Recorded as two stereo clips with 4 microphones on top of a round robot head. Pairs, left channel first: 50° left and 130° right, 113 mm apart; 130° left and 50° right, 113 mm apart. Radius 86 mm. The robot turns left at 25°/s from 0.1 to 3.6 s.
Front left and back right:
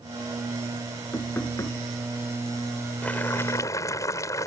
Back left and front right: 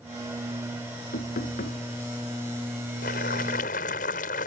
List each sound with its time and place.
1.1 s knocking: 130° left; by 1.8 s 115° left
3.0 s boiling: 130° left; by 4.5 s 115° left